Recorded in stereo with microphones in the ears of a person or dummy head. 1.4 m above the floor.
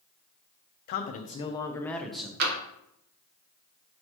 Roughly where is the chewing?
I don't hear chewing.